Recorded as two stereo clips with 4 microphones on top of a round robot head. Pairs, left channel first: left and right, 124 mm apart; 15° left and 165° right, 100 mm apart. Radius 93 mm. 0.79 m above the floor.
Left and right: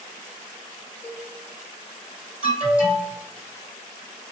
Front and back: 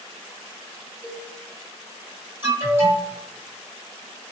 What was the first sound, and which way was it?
A cowbell, 160° left.